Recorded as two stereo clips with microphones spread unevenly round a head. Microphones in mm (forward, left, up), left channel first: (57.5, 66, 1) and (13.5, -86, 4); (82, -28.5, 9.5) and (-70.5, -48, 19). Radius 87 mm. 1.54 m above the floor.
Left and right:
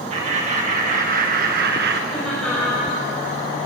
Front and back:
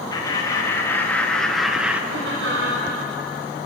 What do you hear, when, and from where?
0.1 s laughter: 55° right, 2 m; by 2.0 s 90° right, 1.4 m
2.1 s laughter: 165° left, 6.5 m